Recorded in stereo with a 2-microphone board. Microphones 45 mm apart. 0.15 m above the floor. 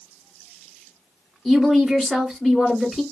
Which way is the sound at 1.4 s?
10° left (ahead or behind).